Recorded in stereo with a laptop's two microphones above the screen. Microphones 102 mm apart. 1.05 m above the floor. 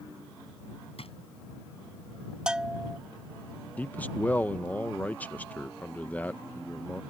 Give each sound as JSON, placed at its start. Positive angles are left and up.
{"t": 1.0, "sound": "a drawer", "side_deg": 75}
{"t": 2.5, "sound": "a bell", "side_deg": -5}
{"t": 3.8, "sound": "a man speaking", "side_deg": 15}